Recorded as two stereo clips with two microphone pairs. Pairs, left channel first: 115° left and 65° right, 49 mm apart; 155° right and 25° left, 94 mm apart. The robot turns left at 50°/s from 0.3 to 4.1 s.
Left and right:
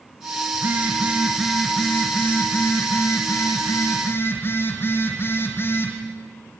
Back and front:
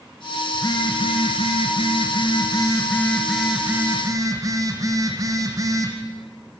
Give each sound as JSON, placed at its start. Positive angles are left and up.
{"t": 0.5, "sound": "a phone buzzing", "azimuth_deg": -105, "distance_m": 3.5}